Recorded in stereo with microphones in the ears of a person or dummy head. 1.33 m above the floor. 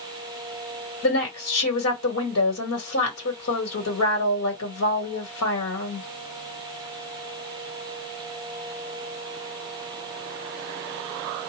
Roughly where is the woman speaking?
Left.